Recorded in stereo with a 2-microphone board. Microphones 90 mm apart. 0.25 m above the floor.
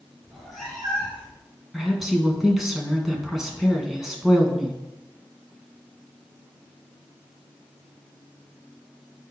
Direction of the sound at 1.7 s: 5° right (ahead or behind).